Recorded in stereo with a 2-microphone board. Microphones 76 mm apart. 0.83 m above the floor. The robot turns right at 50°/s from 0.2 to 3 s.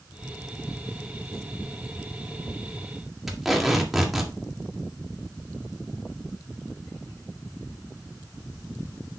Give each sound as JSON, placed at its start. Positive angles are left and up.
{"t": 3.3, "sound": "tape being pulled", "side_deg": 0, "distance_m": 2.0}